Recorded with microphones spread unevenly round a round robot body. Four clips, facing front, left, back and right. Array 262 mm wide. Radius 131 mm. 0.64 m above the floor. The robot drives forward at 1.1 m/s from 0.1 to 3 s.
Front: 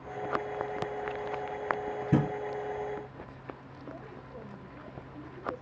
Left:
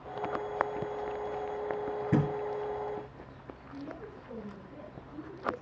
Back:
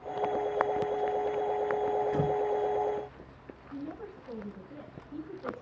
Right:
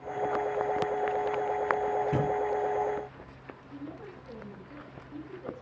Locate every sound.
2.1 s a thud: 25° left, 6.5 m
3.7 s a woman speaking: 165° right, 10 m